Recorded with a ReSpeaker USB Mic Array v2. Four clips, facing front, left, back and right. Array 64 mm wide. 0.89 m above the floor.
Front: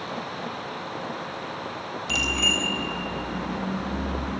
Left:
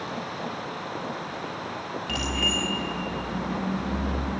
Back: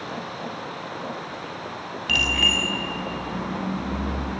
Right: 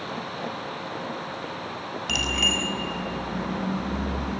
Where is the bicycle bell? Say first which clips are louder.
Right 2 dB, back 3 dB; 170° right, 5 m; by 4.4 s 160° right, 7 m.